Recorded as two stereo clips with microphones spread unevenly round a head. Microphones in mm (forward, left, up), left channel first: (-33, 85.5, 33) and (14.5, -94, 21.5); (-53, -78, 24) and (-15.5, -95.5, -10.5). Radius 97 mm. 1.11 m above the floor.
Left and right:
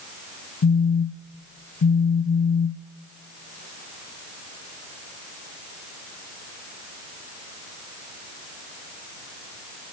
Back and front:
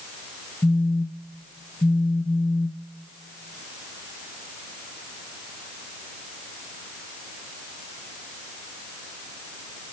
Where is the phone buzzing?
105° left, 0.5 m.